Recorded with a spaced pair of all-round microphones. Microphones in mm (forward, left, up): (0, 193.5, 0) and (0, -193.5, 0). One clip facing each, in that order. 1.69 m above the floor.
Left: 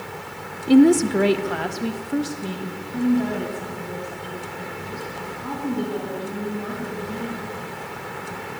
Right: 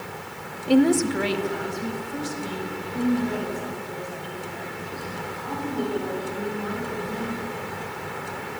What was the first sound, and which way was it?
A woman speaking, 30° left (ahead or behind).